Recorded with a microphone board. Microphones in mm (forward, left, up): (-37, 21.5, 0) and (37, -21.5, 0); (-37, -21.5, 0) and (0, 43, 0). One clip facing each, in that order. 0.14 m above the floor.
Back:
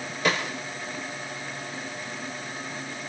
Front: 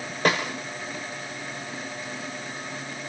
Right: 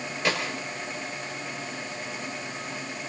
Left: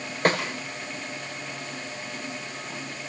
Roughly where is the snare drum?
Ahead.